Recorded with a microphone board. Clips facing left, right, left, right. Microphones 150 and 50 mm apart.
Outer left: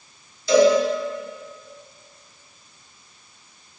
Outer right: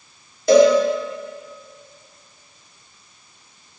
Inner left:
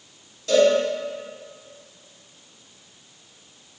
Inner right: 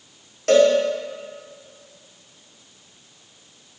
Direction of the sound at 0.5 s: 60° right (ahead or behind).